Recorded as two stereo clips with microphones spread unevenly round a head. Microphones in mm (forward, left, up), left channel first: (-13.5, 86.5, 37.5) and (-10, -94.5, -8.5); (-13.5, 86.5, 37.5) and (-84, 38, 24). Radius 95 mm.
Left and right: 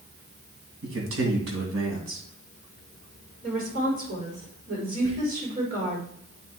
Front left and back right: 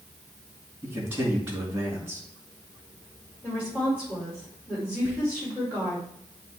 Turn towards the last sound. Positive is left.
turn(degrees=-60)